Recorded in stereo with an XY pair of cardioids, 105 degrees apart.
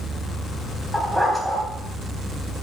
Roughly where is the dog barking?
Ahead.